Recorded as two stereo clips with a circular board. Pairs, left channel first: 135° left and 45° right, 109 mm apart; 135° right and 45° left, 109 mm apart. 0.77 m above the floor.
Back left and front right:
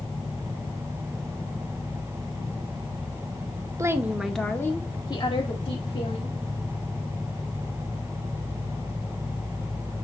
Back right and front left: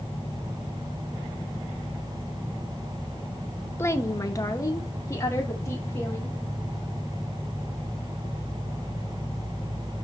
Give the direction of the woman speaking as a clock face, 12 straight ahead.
3 o'clock.